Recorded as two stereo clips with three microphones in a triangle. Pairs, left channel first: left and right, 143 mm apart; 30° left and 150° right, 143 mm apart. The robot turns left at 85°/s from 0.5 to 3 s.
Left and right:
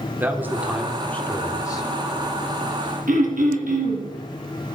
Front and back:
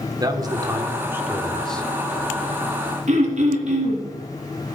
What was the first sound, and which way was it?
A man speaking, 150° right.